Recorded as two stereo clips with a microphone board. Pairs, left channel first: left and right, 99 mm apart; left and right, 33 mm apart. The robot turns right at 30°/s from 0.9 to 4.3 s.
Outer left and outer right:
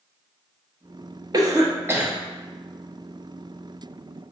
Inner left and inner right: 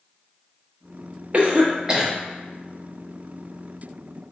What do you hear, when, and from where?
1.3 s a cough: 40° right (ahead or behind), 0.8 m; by 2.1 s 20° right (ahead or behind), 0.8 m